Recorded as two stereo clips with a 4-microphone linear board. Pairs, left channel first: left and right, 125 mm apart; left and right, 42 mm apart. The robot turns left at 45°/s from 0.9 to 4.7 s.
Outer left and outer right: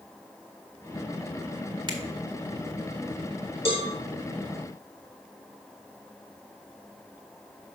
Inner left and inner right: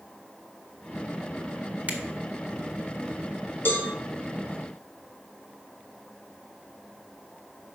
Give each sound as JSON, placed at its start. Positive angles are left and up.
{"t": 1.9, "sound": "a finger snap", "side_deg": -40, "distance_m": 1.7}
{"t": 3.6, "sound": "a cowbell", "side_deg": 50, "distance_m": 3.5}